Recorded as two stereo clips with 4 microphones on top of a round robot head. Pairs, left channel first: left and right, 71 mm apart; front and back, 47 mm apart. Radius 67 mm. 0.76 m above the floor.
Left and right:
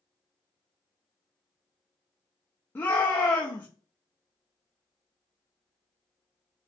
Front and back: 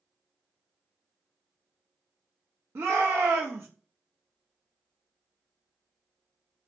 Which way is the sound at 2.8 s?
145° left.